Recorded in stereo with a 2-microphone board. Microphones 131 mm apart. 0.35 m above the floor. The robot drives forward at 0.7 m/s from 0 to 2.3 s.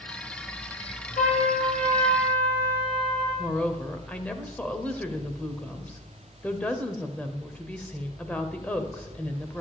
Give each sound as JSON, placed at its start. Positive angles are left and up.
{"t": 1.2, "sound": "a trumpet", "side_deg": 70, "distance_m": 5.0}
{"t": 3.4, "sound": "a woman speaking", "side_deg": 10, "distance_m": 1.2}